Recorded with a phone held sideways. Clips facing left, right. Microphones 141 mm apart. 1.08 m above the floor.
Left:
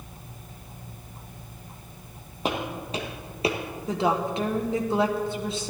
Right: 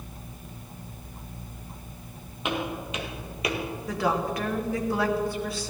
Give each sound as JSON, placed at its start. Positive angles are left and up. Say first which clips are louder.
{"t": 2.5, "sound": "footsteps", "louder": "left 1 dB", "side_deg": 40, "distance_m": 2.0}
{"t": 3.9, "sound": "a woman speaking", "louder": "left 2 dB", "side_deg": 20, "distance_m": 1.3}